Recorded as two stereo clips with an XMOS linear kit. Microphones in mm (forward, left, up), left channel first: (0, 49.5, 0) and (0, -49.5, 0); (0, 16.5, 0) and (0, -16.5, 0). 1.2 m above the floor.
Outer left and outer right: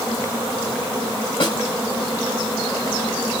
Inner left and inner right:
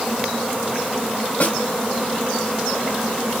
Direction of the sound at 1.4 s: 55° left (ahead or behind).